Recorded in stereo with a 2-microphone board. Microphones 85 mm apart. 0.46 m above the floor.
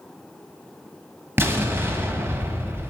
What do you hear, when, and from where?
1.4 s an explosion: 25° right (ahead or behind), 1.1 m